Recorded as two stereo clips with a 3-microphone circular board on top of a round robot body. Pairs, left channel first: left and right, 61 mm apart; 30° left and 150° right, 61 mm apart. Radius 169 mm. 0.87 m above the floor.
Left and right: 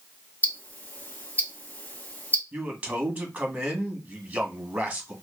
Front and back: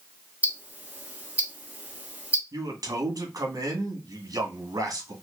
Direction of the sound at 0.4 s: 145° left.